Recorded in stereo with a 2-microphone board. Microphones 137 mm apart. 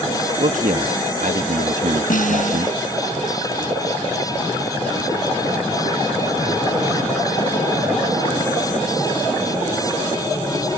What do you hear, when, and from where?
0.4 s a man speaking: 75° right (ahead or behind)
2.1 s a snare drum: 70° left (ahead or behind)